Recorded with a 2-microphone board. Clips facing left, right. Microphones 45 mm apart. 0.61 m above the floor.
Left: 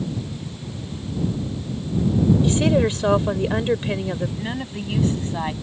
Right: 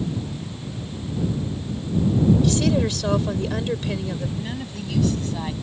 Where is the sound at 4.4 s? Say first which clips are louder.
Left 2 dB; 30° left (ahead or behind).